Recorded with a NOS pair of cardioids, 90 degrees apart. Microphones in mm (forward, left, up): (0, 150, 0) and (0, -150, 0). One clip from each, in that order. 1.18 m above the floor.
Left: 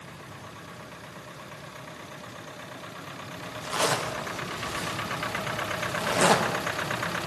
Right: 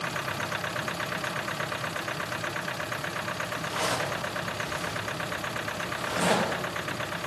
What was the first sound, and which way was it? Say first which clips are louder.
A zipper: left 5 dB; 40° left.